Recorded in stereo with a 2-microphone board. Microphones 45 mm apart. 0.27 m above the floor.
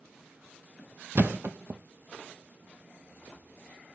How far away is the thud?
About 0.7 m.